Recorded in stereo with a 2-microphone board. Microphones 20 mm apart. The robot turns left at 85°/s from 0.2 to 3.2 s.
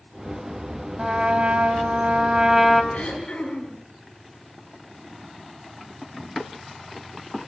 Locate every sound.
1.0 s a trumpet: 25° right, 3.5 m; by 2.8 s straight behind, 3.5 m
2.9 s throat clearing: 80° left, 9 m; by 3.8 s 60° left (ahead or behind), 9 m